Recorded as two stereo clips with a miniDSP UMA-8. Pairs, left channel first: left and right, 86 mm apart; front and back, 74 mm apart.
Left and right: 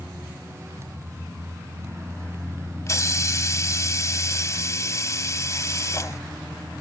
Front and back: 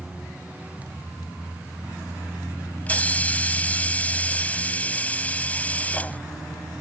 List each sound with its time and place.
2.9 s a hiss: 60° left